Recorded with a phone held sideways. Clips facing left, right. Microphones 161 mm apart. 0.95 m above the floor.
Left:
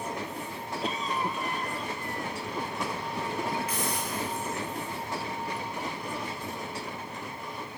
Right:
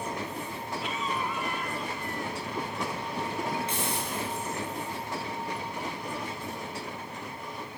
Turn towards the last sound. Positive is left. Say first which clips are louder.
# even
turn(degrees=-25)  # may be behind; listen again after turning